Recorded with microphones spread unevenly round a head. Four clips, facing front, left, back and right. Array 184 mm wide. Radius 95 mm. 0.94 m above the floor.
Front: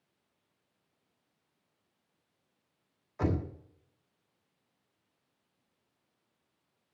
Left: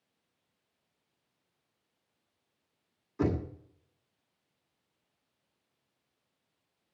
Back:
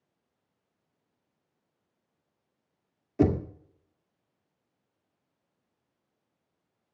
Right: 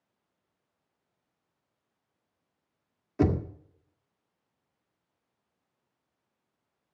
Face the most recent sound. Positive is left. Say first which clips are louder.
# right 4 dB, back 8 dB
turn(degrees=-155)